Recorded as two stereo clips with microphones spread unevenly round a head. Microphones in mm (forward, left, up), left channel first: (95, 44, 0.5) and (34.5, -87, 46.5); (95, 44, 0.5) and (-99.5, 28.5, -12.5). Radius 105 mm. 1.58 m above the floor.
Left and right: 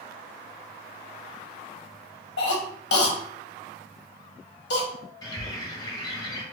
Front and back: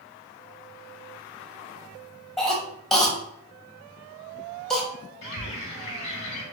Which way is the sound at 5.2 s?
10° right.